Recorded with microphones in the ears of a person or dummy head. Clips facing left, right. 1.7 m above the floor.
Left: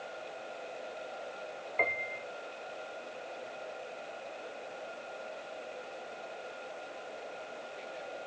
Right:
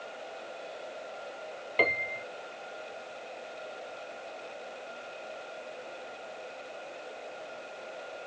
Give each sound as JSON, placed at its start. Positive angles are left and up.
{"t": 1.8, "sound": "a piano", "side_deg": -55}